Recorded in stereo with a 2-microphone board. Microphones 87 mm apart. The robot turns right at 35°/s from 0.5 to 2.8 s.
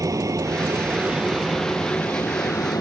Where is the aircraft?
40° right (ahead or behind); by 2.8 s 45° left (ahead or behind).